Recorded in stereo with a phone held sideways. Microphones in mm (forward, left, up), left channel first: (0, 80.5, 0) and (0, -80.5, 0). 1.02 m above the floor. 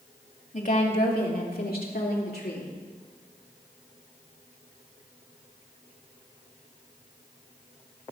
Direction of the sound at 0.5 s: 55° left (ahead or behind).